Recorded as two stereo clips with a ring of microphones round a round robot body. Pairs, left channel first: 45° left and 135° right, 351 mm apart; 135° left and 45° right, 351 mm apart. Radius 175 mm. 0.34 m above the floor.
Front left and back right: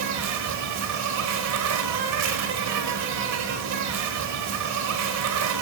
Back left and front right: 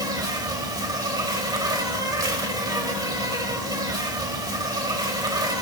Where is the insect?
120° right, 1.7 m.